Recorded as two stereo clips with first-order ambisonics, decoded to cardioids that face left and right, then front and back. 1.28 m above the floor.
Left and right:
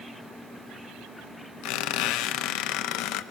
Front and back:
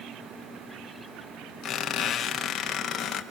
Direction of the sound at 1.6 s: 65° left.